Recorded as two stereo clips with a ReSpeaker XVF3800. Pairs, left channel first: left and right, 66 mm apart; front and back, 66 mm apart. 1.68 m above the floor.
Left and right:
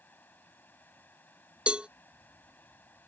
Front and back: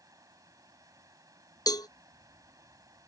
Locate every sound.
0.0 s running water: 150° left
1.7 s a cowbell: 15° right